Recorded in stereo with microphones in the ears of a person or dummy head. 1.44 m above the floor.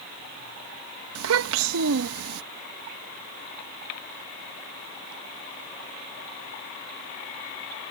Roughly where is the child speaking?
Right.